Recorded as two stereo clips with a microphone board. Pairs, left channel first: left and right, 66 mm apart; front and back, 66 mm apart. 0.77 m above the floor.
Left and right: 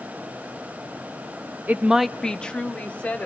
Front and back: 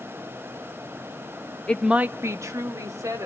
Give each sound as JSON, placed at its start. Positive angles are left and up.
{"t": 1.7, "sound": "a woman speaking", "azimuth_deg": -55, "distance_m": 0.6}